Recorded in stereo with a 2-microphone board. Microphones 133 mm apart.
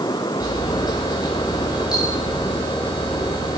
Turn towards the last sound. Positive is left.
turn(degrees=30)  # may be behind; listen again after turning